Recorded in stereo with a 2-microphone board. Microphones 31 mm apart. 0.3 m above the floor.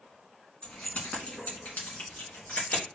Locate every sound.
0.6 s keys jangling: 40° left (ahead or behind), 1.9 m; by 2.9 s 75° left (ahead or behind), 2.5 m